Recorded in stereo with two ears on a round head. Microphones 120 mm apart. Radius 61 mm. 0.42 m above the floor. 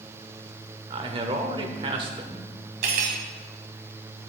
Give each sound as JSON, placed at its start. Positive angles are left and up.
{"t": 0.9, "sound": "a man speaking", "side_deg": -40, "distance_m": 1.0}
{"t": 2.8, "sound": "cutlery clinking", "side_deg": -70, "distance_m": 1.7}